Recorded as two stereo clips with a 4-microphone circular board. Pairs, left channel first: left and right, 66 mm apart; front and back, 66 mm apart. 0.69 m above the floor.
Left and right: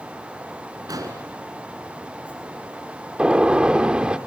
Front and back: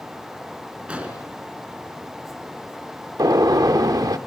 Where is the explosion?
105° right, 4.5 m.